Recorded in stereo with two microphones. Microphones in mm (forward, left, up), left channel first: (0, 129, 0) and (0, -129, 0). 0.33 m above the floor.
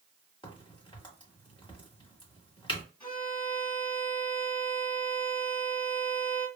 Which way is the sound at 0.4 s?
20° left (ahead or behind).